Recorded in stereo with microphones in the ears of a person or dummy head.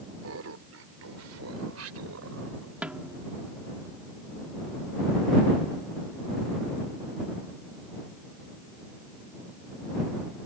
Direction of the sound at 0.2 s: 85° right.